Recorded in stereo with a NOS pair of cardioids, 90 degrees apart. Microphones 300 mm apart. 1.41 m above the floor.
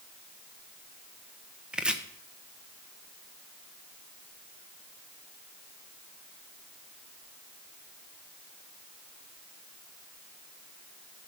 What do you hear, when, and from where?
1.7 s chopping: 5° right, 1.0 m